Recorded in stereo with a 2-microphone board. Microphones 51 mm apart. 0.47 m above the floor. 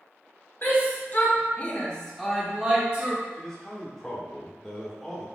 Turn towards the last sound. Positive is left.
turn(degrees=10)  # may be behind; listen again after turning